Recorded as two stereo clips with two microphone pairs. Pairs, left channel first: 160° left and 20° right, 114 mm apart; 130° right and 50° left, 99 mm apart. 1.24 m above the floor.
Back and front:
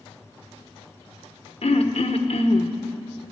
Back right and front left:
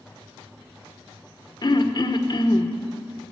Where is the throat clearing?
170° right, 0.9 m.